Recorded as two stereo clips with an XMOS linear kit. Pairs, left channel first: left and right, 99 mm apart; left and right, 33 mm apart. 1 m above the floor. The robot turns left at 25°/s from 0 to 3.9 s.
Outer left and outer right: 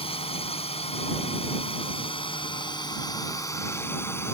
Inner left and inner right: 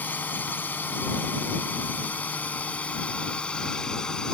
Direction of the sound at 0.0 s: 70° left (ahead or behind).